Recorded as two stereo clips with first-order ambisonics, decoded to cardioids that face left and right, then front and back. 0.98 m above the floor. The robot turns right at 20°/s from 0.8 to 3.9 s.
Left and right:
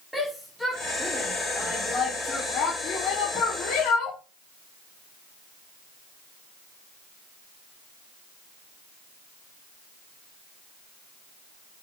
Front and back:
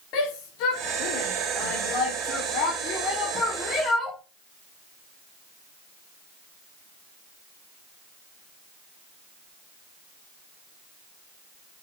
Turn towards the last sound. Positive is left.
turn(degrees=60)